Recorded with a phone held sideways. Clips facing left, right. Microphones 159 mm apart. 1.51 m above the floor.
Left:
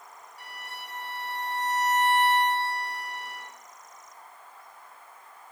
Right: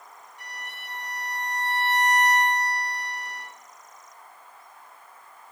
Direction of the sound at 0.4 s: 80° left.